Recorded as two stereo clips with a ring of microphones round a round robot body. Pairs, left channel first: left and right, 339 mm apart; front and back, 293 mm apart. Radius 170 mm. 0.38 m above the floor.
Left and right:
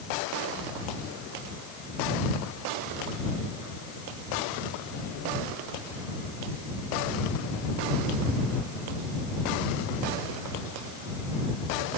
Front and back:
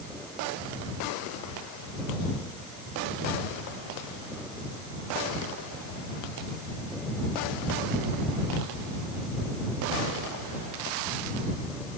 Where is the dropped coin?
No dropped coin in this recording.